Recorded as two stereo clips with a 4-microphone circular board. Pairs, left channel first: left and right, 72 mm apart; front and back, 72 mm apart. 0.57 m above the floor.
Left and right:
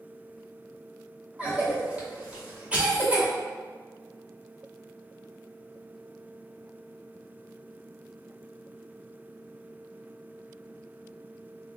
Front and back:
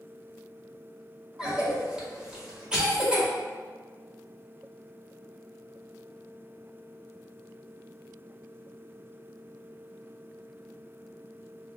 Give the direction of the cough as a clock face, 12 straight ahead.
4 o'clock.